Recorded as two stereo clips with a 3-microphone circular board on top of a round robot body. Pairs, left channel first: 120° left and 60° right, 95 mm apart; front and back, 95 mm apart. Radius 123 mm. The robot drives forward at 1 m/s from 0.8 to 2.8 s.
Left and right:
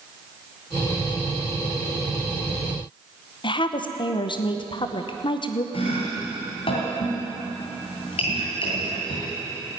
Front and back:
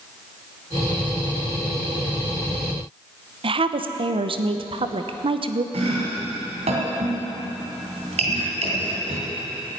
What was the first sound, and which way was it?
A woman speaking, 155° left.